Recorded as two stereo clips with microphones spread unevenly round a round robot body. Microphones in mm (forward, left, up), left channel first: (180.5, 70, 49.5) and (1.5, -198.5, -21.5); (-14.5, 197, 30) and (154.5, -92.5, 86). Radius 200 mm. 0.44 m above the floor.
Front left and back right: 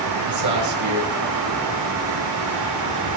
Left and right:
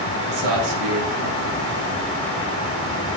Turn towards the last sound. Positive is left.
turn(degrees=-100)